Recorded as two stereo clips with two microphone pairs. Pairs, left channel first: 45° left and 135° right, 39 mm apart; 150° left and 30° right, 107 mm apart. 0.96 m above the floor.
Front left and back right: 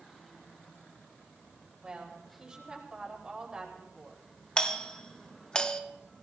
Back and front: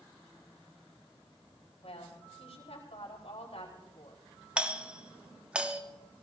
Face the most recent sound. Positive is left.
turn(degrees=20)